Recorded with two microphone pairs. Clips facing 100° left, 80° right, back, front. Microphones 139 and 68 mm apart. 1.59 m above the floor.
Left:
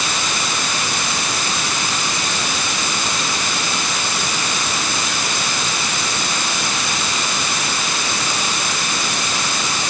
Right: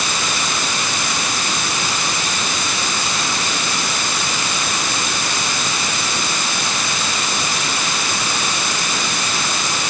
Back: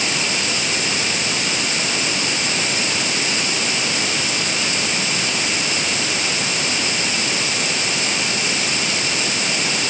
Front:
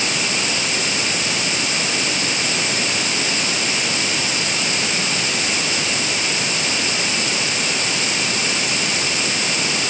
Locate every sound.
Only background noise.